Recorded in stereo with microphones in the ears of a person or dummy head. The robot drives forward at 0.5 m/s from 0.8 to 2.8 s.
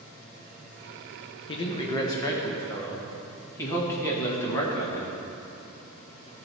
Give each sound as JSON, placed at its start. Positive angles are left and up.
{"t": 1.5, "sound": "a man speaking", "side_deg": 35, "distance_m": 1.0}